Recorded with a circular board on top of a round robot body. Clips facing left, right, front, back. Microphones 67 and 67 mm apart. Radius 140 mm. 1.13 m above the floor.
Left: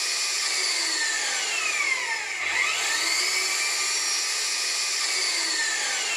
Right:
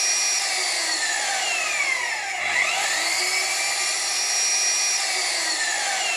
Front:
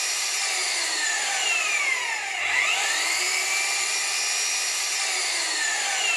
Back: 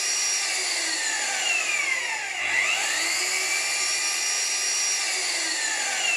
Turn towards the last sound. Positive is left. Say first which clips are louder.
# right 3 dB, front 1 dB
turn(degrees=-90)